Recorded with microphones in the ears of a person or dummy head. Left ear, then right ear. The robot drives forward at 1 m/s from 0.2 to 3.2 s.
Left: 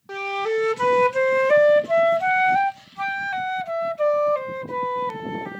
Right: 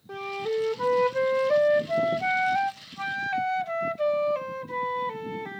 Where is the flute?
40° left (ahead or behind); by 5.6 s 20° left (ahead or behind).